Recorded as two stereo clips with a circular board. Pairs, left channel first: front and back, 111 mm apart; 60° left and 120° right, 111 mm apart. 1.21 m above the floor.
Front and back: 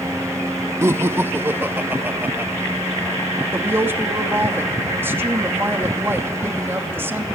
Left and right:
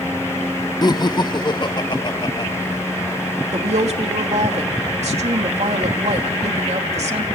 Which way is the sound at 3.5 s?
110° right.